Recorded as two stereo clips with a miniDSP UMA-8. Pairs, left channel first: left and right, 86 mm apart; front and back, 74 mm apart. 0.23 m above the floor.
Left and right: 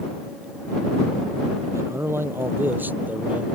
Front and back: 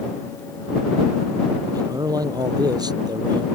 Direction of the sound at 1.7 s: 145° right.